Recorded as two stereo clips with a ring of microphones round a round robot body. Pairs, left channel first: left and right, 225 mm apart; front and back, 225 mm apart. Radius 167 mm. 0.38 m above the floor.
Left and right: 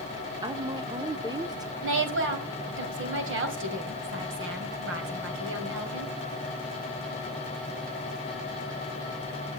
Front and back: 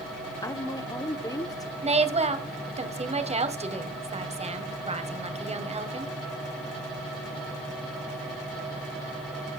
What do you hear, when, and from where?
0.4 s a woman speaking: 50° right, 1.0 m
1.8 s a woman speaking: 120° right, 2.5 m